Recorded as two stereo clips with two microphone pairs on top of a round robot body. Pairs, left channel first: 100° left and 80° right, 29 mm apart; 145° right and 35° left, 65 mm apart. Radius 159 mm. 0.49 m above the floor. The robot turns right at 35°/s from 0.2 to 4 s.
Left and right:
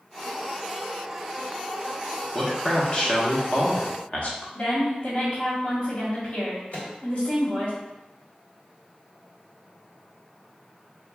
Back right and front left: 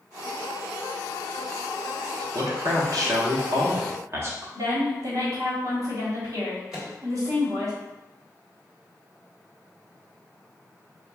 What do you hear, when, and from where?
2.3 s a man speaking: 25° left, 1.5 m; by 4.5 s 80° left, 1.5 m
4.5 s a woman speaking: 65° left, 1.7 m
6.7 s a microwave: 125° left, 1.9 m